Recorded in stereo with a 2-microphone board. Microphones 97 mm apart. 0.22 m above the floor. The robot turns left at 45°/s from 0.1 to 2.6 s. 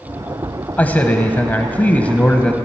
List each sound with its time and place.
0.8 s a man speaking: 15° left (ahead or behind), 0.9 m; by 2.6 s 10° left (ahead or behind), 0.9 m